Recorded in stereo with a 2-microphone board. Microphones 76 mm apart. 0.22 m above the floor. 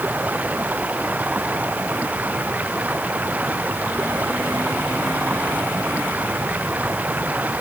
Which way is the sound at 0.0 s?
20° right (ahead or behind).